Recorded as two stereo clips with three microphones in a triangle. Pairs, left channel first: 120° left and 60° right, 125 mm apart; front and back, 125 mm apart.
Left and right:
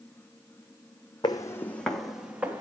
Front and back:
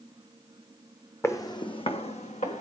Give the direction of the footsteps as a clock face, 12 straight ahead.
10 o'clock.